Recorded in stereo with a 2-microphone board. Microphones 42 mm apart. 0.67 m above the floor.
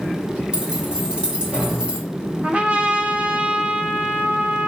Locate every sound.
0.5 s keys jangling: 20° right (ahead or behind), 2 m
2.4 s a trumpet: 30° right (ahead or behind), 1.2 m